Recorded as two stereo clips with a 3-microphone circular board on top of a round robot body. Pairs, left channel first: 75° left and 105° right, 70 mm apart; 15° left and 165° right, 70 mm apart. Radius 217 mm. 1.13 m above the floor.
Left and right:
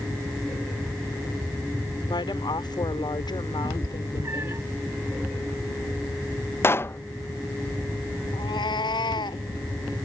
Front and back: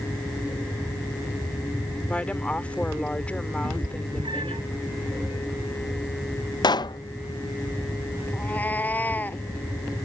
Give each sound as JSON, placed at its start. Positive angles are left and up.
{"t": 2.1, "sound": "a woman speaking", "azimuth_deg": 85}
{"t": 3.6, "sound": "a cat meowing", "azimuth_deg": -165}
{"t": 6.6, "sound": "a pop", "azimuth_deg": 20}
{"t": 8.3, "sound": "a cat meowing", "azimuth_deg": 80}